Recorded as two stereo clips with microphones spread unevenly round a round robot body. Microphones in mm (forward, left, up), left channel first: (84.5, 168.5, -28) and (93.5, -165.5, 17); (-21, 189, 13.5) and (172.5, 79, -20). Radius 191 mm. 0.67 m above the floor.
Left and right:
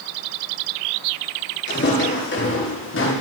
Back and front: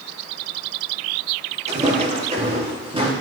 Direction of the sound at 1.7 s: 35° left.